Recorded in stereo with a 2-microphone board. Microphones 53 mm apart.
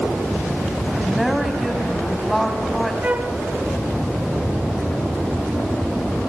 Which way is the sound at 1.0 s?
5° left (ahead or behind).